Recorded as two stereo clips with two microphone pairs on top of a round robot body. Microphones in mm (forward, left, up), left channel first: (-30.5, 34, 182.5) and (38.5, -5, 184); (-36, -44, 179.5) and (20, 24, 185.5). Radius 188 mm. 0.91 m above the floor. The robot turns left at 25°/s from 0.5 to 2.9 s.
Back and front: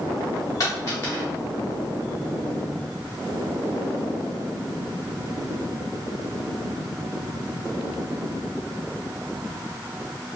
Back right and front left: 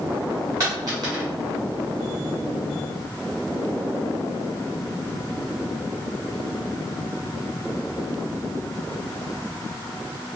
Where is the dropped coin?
105° left, 0.8 m; by 1.2 s 90° left, 0.8 m.